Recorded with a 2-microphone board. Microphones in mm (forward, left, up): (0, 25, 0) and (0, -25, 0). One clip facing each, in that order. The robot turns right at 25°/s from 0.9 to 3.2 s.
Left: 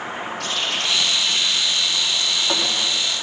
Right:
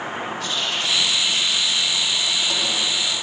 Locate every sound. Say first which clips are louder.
0.4 s a running tap: left 2 dB; 105° left, 4.5 m; by 2.8 s 155° left, 4.5 m